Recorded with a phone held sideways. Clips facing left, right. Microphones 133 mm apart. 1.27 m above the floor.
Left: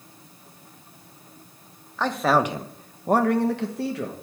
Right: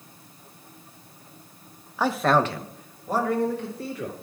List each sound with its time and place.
2.0 s a man speaking: 10° right (ahead or behind), 0.9 m; by 4.1 s 90° left, 1.4 m